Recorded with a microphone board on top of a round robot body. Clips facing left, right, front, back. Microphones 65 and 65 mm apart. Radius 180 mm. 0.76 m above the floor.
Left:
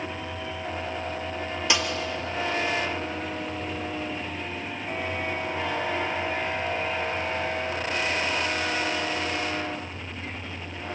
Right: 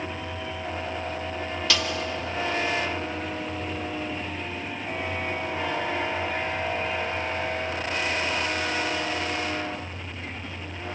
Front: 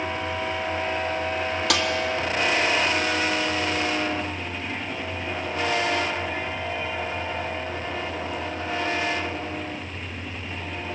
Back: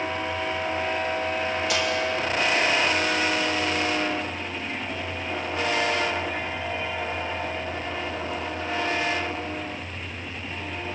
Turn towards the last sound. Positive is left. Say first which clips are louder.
# left 1 dB, front 3 dB
turn(degrees=20)